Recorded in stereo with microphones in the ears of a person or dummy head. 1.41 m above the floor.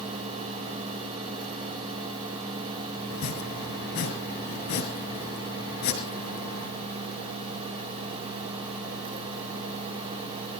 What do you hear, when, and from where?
3.1 s chopping: 55° left (ahead or behind), 4.5 m